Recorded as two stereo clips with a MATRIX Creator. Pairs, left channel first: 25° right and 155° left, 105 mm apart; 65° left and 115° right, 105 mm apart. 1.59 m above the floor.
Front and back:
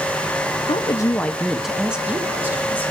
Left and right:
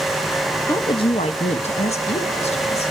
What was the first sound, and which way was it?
A woman speaking, 5° left.